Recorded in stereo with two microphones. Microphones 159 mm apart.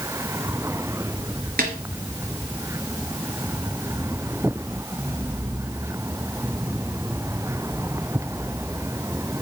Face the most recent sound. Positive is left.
turn(degrees=-65)  # may be behind; listen again after turning